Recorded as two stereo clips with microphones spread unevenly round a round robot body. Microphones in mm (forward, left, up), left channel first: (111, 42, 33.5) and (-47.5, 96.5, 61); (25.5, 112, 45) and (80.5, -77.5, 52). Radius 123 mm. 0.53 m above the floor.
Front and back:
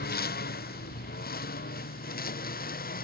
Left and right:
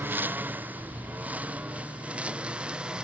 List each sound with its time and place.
0.0 s a lawn mower: 5° left; by 3.1 s 10° left